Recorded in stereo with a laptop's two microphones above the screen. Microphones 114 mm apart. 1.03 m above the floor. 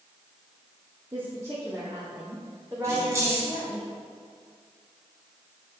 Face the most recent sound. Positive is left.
turn(degrees=-25)  # may be behind; listen again after turning